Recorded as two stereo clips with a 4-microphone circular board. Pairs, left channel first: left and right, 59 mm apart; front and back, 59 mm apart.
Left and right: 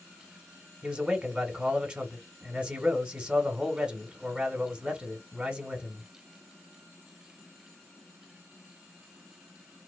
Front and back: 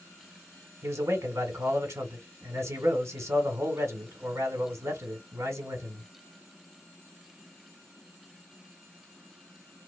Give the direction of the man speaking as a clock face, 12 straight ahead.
5 o'clock.